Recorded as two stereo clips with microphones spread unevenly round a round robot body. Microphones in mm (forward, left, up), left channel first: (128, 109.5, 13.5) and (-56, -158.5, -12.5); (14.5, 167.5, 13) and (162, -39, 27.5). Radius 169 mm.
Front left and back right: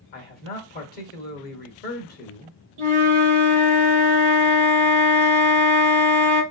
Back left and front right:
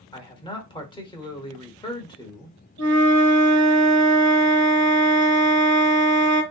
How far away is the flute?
About 1.0 m.